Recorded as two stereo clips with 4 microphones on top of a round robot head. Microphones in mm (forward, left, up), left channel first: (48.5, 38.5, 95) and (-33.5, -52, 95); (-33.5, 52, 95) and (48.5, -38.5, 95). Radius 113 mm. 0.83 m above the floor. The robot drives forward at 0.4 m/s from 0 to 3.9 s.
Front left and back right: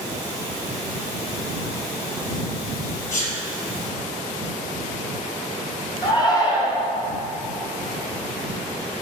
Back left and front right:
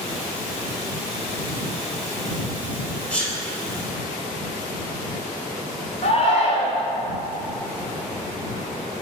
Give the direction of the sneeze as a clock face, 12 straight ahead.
10 o'clock.